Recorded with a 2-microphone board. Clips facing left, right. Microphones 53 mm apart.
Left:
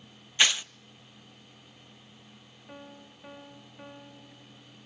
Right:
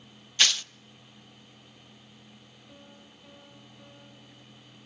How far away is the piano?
About 2 m.